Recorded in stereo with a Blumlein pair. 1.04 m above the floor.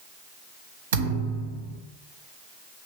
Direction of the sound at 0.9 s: 60° right.